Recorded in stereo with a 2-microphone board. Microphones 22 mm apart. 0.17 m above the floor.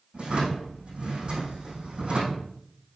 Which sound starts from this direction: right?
A drawer, at 0.1 s.